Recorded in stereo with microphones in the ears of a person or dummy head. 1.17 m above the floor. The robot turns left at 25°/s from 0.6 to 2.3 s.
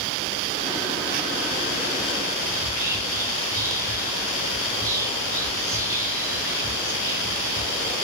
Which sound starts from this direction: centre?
Whispering, at 2.5 s.